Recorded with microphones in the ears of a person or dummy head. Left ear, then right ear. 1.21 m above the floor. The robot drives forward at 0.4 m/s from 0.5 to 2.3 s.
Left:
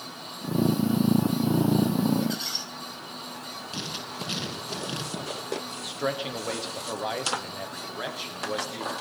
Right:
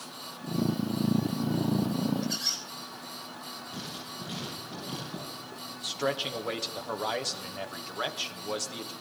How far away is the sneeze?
No sneeze in this recording.